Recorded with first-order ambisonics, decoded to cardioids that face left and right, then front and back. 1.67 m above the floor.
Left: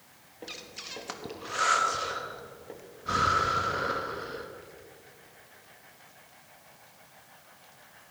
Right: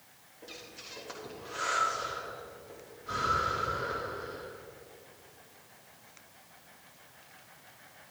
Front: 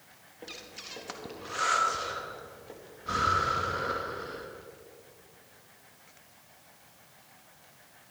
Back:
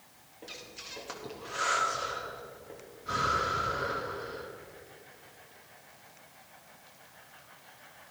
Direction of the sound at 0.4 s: 70° left.